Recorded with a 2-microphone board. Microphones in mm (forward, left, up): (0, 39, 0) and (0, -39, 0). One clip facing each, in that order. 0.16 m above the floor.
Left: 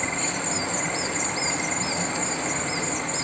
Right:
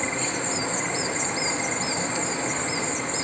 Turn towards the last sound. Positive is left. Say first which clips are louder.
# even
turn(degrees=-65)  # may be behind; listen again after turning